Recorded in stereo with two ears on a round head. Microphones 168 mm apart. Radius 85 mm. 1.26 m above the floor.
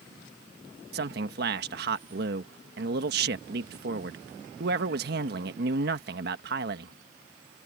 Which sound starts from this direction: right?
A man speaking, at 0.9 s.